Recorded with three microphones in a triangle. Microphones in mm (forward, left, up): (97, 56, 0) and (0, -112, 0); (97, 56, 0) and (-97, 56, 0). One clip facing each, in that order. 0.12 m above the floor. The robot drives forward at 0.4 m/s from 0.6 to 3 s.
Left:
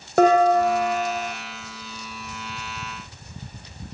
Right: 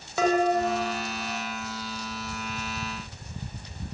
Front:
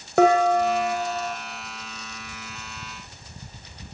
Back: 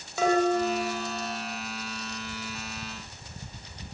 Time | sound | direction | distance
0.2 | dishes clattering | 25° left | 5 m